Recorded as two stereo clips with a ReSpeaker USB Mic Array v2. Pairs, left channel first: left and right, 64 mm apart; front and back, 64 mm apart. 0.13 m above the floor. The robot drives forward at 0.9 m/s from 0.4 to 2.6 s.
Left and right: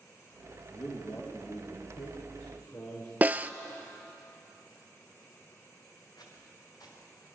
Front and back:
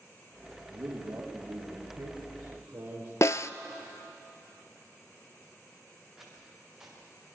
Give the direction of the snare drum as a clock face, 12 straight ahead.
1 o'clock.